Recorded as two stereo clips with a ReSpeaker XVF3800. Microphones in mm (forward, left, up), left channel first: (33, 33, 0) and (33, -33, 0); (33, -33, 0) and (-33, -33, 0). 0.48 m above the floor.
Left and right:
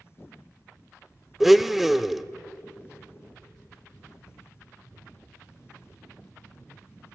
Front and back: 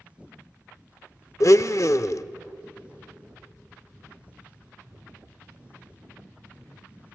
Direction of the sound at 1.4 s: 5° right.